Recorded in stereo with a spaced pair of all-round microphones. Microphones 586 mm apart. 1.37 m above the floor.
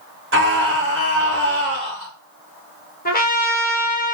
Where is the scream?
20° right (ahead or behind), 0.6 m.